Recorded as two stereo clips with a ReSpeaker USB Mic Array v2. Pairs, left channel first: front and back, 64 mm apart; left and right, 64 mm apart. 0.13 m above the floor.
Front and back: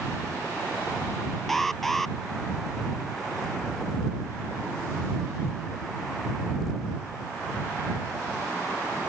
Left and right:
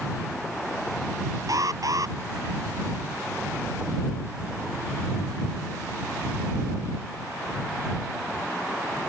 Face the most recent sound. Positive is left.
turn(degrees=-85)